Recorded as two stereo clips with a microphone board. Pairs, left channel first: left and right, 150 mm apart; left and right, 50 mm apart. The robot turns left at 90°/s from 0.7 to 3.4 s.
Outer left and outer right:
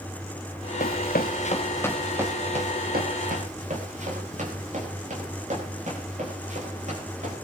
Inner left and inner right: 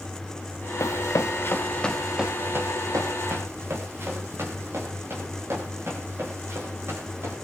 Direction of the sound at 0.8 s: 65° left (ahead or behind).